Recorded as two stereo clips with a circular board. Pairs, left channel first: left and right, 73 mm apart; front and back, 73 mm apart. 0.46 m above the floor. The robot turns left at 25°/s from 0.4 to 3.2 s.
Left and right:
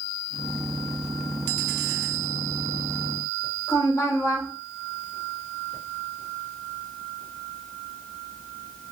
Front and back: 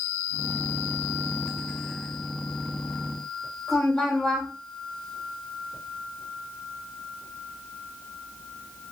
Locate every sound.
3.7 s a woman speaking: 85° left, 2.0 m